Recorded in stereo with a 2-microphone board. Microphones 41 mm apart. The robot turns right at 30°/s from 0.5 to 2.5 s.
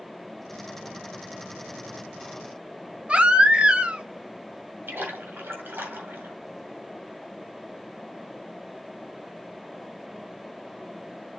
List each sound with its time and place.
3.1 s a baby crying: 30° right (ahead or behind), 1.0 m
4.9 s a splash: 65° right (ahead or behind), 3 m